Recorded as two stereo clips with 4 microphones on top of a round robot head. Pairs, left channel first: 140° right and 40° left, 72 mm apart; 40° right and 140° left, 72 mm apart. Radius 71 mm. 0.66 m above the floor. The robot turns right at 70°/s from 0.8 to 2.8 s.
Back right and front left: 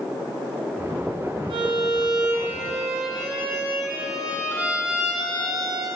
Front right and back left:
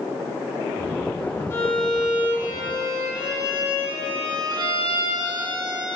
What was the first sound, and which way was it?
A violin, 20° left.